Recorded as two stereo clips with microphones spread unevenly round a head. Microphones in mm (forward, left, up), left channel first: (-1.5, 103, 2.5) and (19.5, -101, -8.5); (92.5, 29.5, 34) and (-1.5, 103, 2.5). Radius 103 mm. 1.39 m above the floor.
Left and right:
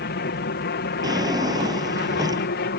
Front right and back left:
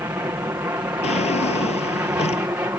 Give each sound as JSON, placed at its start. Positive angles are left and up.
{"t": 0.0, "sound": "an aircraft", "azimuth_deg": 85}
{"t": 1.0, "sound": "a drawer", "azimuth_deg": -10}